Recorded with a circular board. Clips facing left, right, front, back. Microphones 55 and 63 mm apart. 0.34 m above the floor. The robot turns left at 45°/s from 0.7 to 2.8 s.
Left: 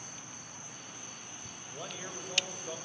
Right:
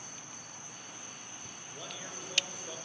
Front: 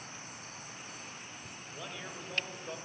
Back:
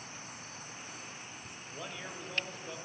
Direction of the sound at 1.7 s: 110° left.